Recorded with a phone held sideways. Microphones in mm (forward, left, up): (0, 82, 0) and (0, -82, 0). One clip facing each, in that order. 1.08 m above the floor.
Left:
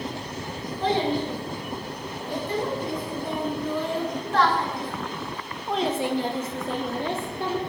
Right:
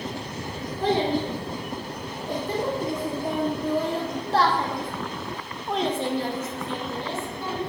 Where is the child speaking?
50° right (ahead or behind), 3 m; by 7.6 s 70° left (ahead or behind), 0.9 m.